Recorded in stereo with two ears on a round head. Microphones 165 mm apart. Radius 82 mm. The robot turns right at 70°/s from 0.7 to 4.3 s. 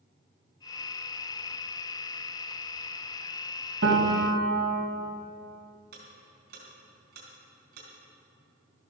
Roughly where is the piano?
Behind right.